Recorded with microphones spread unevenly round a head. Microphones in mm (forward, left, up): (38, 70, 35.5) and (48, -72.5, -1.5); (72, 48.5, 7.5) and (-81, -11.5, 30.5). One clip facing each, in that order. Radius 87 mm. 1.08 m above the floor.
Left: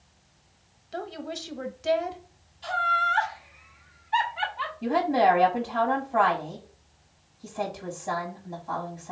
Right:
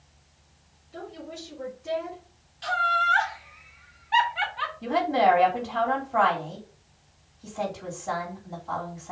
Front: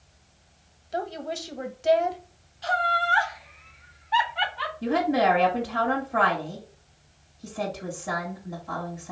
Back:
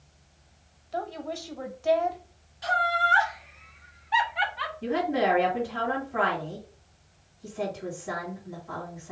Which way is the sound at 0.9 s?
90° left.